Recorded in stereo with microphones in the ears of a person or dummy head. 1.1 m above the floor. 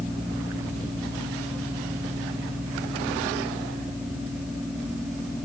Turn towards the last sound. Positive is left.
No sound to turn to.